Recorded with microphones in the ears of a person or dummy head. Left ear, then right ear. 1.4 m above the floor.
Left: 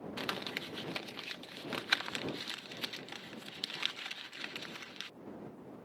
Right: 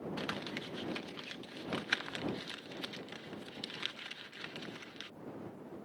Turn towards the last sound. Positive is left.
turn(degrees=25)  # may be behind; listen again after turning